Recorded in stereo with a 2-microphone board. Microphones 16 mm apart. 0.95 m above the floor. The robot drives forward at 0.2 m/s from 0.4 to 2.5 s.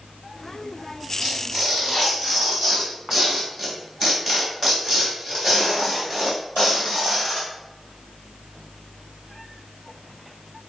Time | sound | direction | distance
1.2 | tearing paper | 5° right (ahead or behind) | 3 m